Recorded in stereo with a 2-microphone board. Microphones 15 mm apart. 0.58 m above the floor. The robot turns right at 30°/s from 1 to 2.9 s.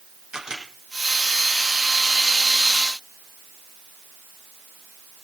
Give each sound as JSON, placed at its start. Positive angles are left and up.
{"t": 0.3, "sound": "a camera shutter", "side_deg": -60, "distance_m": 5.5}